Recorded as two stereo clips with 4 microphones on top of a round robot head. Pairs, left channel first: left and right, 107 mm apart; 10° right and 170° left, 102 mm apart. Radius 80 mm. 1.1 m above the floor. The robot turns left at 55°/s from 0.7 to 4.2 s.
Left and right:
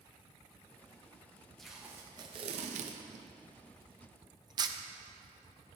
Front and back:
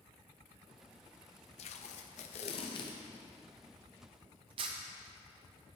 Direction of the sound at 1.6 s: 5° left.